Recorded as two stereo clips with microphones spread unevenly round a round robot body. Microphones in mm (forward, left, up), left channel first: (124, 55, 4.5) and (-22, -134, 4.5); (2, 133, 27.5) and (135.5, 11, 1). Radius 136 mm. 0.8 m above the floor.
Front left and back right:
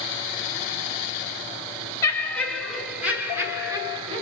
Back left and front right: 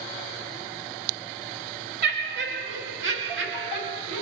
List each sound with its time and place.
2.0 s laughter: 25° right, 1.9 m; by 4.2 s 60° right, 2.5 m